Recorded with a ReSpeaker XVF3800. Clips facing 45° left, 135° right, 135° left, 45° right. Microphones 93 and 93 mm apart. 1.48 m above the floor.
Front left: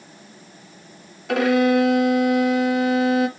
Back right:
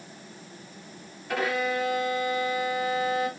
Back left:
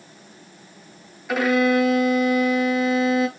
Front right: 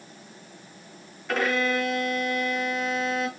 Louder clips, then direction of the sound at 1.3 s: Front left 10 dB, back left 6 dB; 50° left.